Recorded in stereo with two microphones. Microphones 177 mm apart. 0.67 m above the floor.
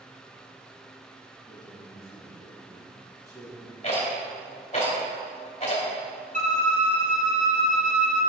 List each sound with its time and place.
1.4 s a man speaking: 20° right (ahead or behind), 4 m
3.8 s a rattle: 40° left (ahead or behind), 3 m
6.3 s a violin: 45° right (ahead or behind), 1.5 m